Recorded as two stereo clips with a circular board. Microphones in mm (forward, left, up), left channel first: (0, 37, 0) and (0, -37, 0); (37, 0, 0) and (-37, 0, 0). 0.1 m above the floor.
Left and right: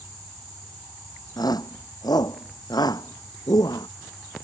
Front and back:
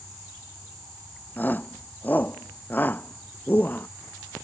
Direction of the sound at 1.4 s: 65° left.